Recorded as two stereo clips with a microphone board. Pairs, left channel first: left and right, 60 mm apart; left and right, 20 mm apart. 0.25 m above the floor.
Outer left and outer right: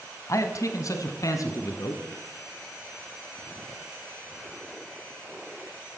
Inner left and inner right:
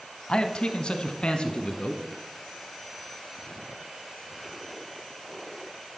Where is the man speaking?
55° left (ahead or behind), 1.7 m; by 2.0 s 70° left (ahead or behind), 2.5 m.